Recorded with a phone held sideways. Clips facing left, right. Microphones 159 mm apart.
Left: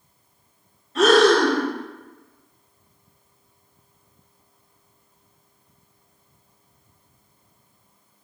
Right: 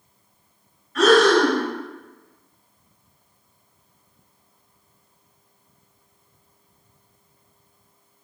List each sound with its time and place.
0.9 s breathing: 25° left (ahead or behind), 1.2 m